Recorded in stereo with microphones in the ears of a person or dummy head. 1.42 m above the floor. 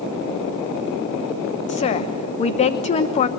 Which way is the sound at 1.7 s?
35° left (ahead or behind).